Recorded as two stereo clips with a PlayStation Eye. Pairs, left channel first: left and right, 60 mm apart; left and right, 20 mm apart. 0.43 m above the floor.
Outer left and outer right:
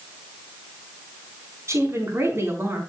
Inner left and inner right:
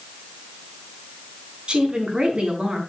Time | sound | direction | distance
1.7 | a woman speaking | 50° right (ahead or behind) | 5 m